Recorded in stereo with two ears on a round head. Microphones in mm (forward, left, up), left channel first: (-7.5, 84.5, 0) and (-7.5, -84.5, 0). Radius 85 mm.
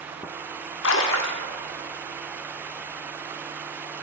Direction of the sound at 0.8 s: 75° left (ahead or behind).